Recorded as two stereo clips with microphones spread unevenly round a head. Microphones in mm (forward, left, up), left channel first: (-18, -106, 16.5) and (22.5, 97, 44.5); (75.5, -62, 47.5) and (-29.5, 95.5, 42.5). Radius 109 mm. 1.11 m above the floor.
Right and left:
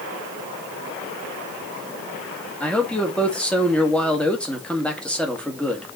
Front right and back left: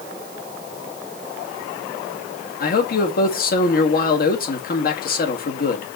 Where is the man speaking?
20° right, 1.9 m.